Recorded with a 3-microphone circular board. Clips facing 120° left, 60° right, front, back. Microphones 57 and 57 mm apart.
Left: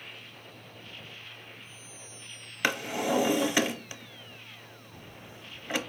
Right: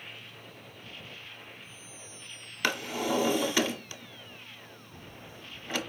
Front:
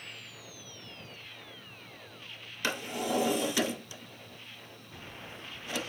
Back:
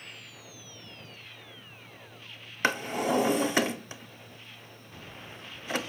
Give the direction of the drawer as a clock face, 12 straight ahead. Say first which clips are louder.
Left 1 dB, back 5 dB; 6 o'clock.